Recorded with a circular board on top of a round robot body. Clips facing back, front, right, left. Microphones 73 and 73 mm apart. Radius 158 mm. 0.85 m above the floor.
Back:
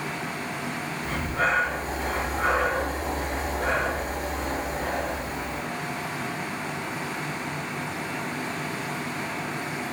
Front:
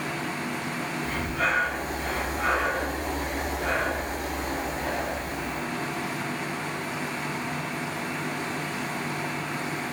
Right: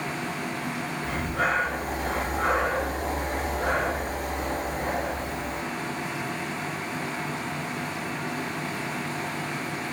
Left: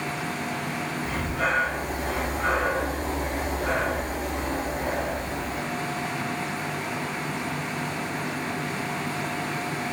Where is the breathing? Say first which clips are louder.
Back 3 dB, right 1 dB; 130° right, 3.5 m.